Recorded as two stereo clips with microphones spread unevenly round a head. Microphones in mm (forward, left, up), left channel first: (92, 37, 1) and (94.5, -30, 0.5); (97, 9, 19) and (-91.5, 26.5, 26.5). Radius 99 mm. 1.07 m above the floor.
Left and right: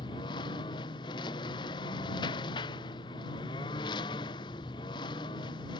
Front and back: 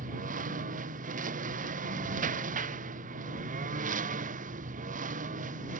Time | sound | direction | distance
0.0 | a lawn mower | 125° left | ?